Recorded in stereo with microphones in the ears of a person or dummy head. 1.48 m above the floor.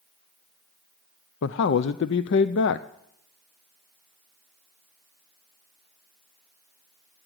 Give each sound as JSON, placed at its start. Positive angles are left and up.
{"t": 1.4, "sound": "a man speaking", "side_deg": 55, "distance_m": 0.5}